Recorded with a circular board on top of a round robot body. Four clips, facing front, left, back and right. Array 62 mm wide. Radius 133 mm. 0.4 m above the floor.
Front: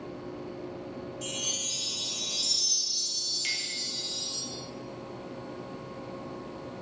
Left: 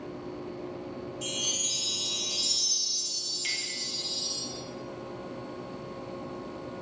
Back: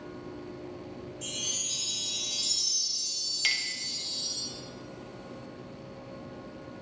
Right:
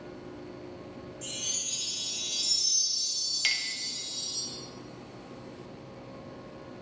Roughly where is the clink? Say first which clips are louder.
Right 5 dB, back 5 dB; behind right.